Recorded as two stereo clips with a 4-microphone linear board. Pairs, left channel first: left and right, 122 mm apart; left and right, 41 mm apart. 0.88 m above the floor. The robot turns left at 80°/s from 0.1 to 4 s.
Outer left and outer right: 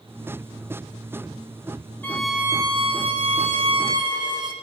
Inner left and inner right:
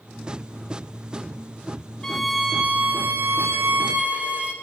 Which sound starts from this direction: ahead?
A violin, at 2.0 s.